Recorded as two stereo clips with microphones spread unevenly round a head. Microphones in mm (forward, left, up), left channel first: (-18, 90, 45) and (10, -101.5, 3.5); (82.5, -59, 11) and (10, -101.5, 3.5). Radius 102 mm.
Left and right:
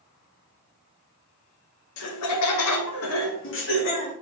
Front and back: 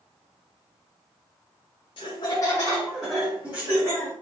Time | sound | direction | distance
2.0 | laughter | 80° left | 0.7 m